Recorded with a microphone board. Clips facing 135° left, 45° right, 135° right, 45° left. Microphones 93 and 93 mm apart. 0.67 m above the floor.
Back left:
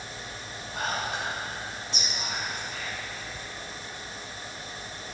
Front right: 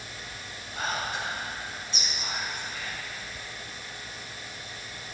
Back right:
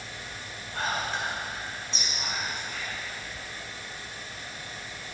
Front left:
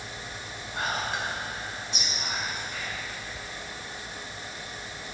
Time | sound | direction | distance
0.7 | whispering | 120° left | 2 m